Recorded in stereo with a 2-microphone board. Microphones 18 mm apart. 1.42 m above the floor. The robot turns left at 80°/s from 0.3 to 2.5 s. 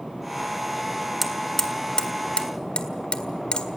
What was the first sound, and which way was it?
Hammering, 5° right (ahead or behind).